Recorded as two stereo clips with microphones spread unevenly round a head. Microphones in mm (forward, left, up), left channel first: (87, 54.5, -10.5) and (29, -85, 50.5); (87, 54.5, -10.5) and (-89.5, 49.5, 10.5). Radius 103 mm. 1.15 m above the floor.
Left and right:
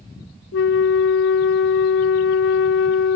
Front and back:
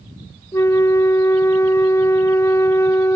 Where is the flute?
80° left, 0.6 m.